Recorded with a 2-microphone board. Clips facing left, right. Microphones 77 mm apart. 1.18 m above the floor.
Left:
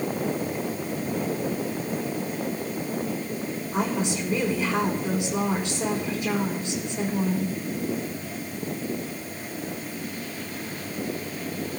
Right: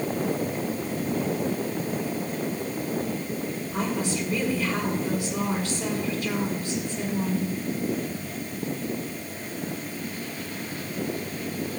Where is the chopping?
I don't hear chopping.